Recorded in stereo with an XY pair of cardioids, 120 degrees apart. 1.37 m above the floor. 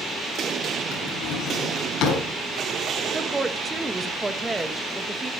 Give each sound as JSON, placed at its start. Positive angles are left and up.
{"t": 0.9, "sound": "a drawer", "azimuth_deg": 70, "distance_m": 5.0}
{"t": 3.1, "sound": "a woman speaking", "azimuth_deg": -15, "distance_m": 1.7}